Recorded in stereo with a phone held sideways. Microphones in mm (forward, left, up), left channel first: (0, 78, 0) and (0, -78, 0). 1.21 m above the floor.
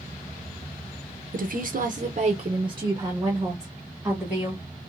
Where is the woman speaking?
60° right (ahead or behind), 0.6 m; by 4.6 s 10° right (ahead or behind), 1.7 m.